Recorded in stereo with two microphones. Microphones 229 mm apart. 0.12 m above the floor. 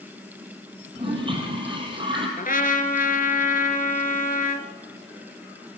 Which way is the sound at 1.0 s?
20° right (ahead or behind).